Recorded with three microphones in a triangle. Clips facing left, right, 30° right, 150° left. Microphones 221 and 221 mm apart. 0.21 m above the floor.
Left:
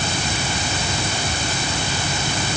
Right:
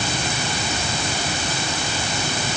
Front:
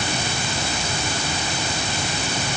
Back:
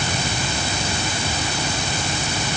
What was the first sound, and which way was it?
Only background noise.